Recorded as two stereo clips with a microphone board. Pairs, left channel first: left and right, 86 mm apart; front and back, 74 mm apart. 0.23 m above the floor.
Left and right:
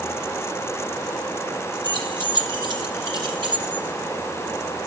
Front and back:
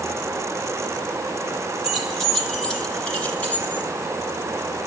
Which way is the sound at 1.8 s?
95° right.